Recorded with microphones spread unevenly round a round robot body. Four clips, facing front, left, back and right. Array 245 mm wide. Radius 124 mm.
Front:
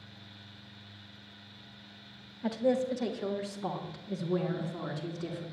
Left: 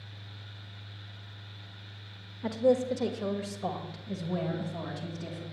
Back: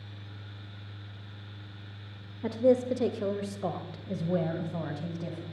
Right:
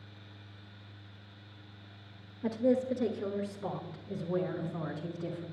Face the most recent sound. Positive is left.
turn(degrees=170)